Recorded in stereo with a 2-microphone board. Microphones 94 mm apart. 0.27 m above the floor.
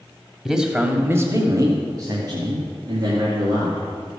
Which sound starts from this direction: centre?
A man speaking, at 0.5 s.